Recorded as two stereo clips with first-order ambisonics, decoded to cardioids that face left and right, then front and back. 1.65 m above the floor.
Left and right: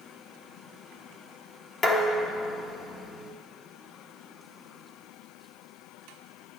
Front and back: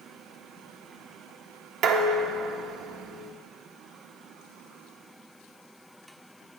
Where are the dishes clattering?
145° left, 1.1 m.